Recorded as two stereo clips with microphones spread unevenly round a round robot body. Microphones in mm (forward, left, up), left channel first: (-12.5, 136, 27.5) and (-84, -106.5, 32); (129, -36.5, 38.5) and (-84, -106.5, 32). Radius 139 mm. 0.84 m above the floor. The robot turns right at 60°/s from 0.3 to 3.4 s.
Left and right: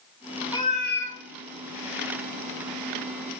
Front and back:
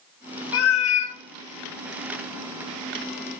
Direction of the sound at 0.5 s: 5° right.